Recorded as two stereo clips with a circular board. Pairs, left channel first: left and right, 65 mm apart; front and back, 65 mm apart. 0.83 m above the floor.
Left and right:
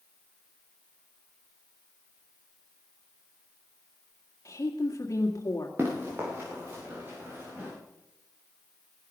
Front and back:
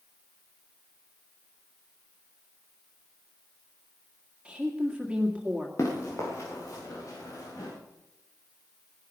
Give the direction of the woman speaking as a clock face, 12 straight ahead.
8 o'clock.